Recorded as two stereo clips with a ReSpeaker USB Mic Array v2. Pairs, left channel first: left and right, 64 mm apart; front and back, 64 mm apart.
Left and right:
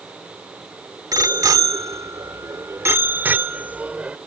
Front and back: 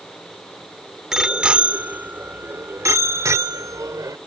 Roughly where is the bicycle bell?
Right.